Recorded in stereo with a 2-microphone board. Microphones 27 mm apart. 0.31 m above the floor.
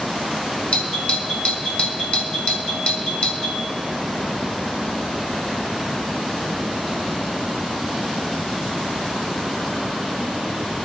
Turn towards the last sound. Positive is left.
turn(degrees=45)  # may be behind; listen again after turning